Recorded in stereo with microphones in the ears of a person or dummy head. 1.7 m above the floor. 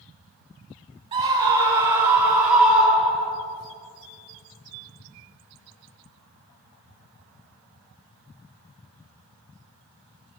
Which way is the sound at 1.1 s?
25° right (ahead or behind).